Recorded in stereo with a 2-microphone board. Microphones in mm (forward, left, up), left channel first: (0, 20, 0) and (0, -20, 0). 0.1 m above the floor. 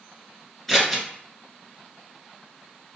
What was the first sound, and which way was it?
Scissors, 10° left (ahead or behind).